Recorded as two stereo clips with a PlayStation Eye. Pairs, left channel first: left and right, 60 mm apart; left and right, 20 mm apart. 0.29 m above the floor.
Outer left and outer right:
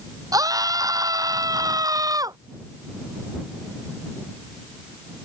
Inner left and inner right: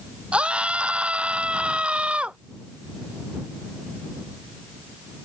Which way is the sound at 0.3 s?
80° right.